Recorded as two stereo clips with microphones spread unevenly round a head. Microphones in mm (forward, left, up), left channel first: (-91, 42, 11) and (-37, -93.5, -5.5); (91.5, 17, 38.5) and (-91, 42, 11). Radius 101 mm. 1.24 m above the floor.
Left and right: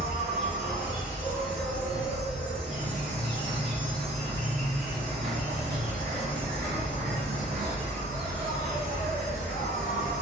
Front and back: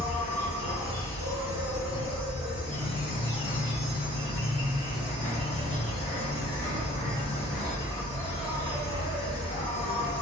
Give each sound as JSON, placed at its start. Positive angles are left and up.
{"t": 0.0, "sound": "an insect", "azimuth_deg": -80, "distance_m": 1.8}